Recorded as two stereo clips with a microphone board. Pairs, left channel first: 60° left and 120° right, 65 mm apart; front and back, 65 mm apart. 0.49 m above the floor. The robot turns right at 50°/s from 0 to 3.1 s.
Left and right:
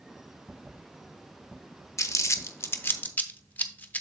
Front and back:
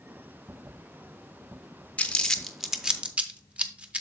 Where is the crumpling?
60° left, 0.7 m; by 4.0 s 115° left, 0.7 m.